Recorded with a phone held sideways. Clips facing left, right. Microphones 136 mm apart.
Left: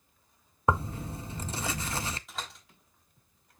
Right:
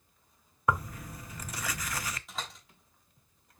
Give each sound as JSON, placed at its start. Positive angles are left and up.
{"t": 0.7, "sound": "tearing paper", "side_deg": 25, "distance_m": 0.6}
{"t": 2.3, "sound": "a door slam", "side_deg": 0, "distance_m": 3.5}